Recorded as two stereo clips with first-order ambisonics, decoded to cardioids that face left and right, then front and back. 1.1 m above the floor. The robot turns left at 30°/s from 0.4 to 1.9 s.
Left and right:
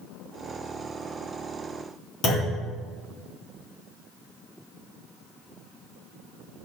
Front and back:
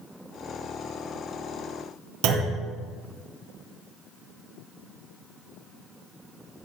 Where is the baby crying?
No baby crying in this recording.